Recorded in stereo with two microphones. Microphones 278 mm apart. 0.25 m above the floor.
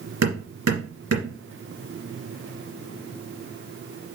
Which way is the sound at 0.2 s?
70° right (ahead or behind).